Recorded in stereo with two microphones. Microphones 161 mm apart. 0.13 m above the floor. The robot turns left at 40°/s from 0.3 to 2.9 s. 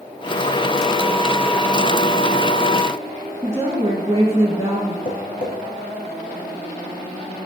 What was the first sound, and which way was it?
A woman speaking, 25° right (ahead or behind).